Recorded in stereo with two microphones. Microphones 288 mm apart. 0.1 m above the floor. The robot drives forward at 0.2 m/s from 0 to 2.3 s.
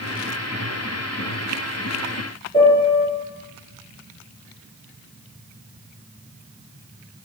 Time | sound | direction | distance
2.5 | a piano | 20° left (ahead or behind) | 0.8 m